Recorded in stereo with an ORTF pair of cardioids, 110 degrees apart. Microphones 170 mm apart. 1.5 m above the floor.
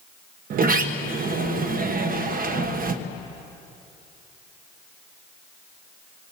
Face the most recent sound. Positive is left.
turn(degrees=-55)